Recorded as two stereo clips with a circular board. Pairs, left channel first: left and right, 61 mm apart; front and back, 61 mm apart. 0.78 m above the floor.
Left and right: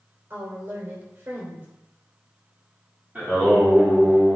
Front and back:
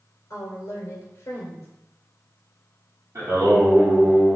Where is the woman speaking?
35° right, 2.5 m.